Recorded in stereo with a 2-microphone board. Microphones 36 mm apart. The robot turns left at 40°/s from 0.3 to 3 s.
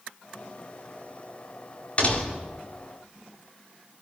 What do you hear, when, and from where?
2.0 s a door slam: 35° left (ahead or behind), 3.5 m; by 2.5 s 60° left (ahead or behind), 3.5 m